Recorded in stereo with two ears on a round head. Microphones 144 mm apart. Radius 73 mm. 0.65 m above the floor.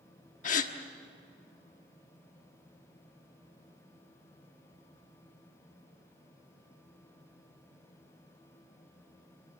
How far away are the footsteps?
No footsteps in this recording.